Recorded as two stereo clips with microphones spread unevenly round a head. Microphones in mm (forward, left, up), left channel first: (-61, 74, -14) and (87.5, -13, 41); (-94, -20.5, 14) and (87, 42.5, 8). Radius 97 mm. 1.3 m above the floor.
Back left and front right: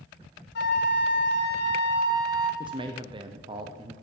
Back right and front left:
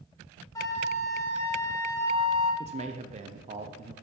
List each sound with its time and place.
0.6 s a flute: 135° left, 1.4 m
2.6 s a man speaking: 40° left, 0.6 m